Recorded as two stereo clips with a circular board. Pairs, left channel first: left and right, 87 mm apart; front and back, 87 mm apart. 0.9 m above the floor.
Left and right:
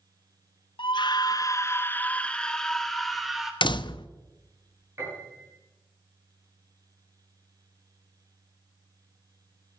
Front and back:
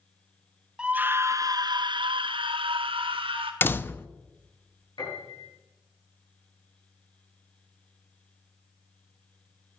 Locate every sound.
0.8 s a scream: 100° left, 0.8 m; by 3.5 s straight behind, 1.9 m
3.6 s a door slam: 65° left, 0.6 m
5.0 s a piano: 35° right, 8.5 m